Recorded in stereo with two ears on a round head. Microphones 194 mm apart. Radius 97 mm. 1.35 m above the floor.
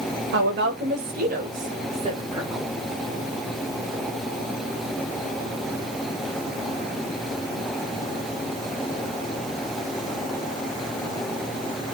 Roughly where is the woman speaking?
Right.